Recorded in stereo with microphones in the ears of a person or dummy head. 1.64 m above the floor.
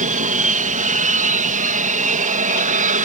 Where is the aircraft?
40° right (ahead or behind).